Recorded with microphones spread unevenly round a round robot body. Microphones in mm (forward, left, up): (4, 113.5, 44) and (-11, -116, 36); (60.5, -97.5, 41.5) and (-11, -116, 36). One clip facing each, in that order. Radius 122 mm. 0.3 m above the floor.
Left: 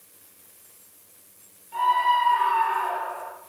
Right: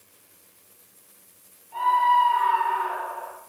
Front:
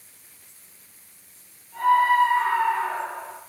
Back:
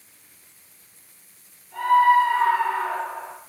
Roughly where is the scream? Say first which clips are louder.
Right 1 dB, back 2 dB; behind left.